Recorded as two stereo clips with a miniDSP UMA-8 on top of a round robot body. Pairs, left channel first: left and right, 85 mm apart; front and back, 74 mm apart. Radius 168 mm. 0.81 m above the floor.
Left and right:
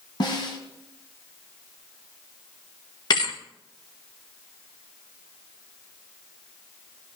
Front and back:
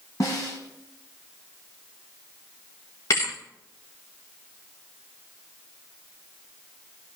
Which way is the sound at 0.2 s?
50° left.